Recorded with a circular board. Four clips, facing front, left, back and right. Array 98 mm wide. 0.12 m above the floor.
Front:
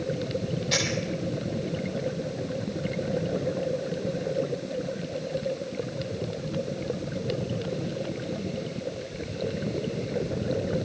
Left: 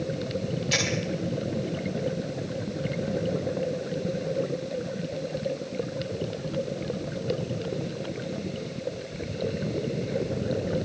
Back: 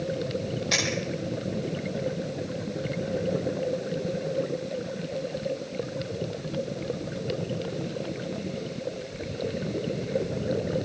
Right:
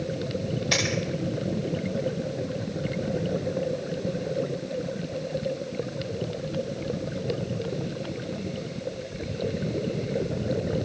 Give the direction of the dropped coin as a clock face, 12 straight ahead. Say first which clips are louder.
Right 1 dB, even; 4 o'clock.